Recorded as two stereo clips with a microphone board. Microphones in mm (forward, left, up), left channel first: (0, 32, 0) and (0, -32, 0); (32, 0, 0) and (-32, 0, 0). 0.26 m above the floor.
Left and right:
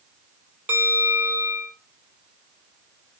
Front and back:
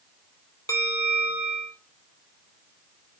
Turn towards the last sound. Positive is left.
turn(degrees=-30)